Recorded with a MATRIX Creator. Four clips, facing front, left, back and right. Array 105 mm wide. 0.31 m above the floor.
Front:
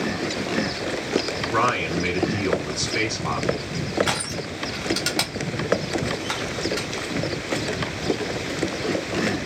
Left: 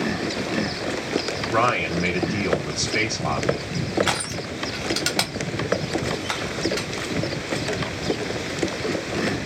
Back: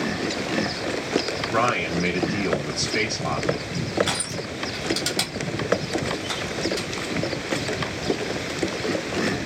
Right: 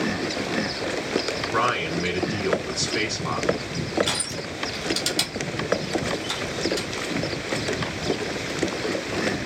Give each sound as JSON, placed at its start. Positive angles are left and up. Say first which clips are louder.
{"t": 1.5, "sound": "a man speaking", "louder": "left 3 dB, front 1 dB", "azimuth_deg": 110, "distance_m": 1.9}
{"t": 4.1, "sound": "crushing", "louder": "left 4 dB, front 2 dB", "azimuth_deg": 65, "distance_m": 0.8}